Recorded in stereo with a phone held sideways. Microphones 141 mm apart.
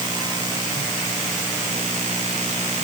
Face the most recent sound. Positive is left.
No sound to turn to.